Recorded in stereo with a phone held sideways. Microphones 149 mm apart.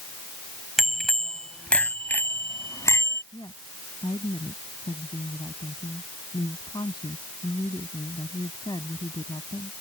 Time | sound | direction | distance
0.8 | a bicycle bell | centre (ahead or behind) | ?
3.3 | a woman speaking | 30° left (ahead or behind) | ?